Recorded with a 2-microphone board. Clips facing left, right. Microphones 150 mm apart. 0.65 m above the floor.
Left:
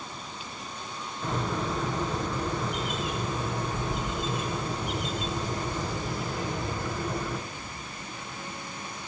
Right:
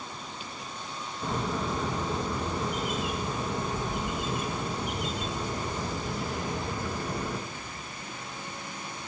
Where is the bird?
10° right (ahead or behind), 2.5 m.